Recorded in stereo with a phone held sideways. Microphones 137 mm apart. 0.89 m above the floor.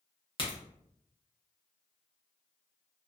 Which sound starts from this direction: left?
A crack, at 0.4 s.